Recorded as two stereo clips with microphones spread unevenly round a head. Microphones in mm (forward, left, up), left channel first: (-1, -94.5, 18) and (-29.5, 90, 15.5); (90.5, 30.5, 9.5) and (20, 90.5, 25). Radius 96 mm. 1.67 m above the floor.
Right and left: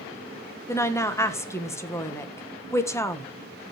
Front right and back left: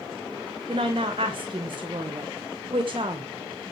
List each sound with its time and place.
0.7 s a woman speaking: 155° right, 1.5 m